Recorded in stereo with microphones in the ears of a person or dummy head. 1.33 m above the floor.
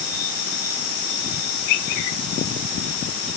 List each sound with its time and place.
Only background noise.